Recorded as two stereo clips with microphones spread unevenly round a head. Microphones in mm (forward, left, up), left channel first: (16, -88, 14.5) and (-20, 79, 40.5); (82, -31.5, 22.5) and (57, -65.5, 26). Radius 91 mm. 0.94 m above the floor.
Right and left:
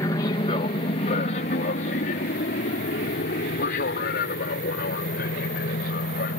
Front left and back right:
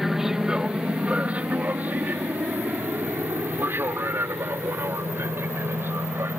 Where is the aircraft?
45° right; by 6.4 s 110° right.